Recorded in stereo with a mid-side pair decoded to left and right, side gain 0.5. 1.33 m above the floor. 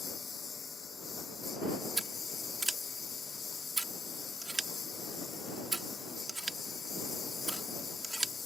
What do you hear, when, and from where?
0.0 s a lawn mower: 35° left
2.0 s scissors: 20° right